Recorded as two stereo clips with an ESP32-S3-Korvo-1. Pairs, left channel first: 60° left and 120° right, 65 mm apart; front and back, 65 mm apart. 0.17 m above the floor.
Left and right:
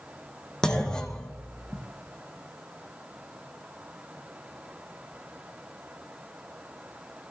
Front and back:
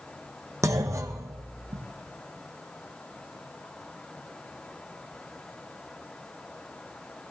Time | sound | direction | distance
0.6 | a clunk | 140° left | 2 m